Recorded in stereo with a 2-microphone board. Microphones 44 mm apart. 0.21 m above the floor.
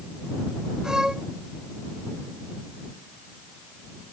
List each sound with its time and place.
0.8 s a violin: 15° right (ahead or behind)